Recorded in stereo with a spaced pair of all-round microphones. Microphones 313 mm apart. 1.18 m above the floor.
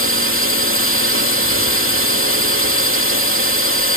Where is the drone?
40° right (ahead or behind).